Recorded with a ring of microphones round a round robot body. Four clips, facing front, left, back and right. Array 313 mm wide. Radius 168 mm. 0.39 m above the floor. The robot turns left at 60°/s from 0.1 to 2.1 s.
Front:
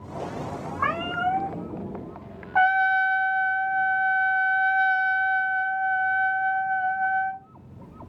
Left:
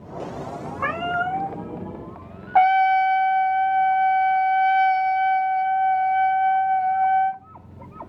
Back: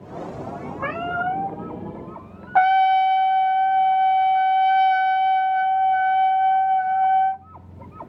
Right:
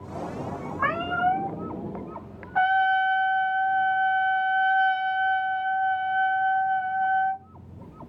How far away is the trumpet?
About 0.6 m.